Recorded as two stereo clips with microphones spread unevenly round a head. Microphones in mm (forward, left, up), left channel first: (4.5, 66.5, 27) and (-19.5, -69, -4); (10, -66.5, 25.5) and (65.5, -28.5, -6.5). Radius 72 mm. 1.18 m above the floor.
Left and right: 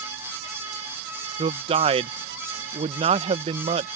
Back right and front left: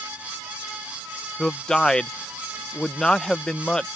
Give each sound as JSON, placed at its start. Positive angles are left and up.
{"t": 1.4, "sound": "a man speaking", "azimuth_deg": -55}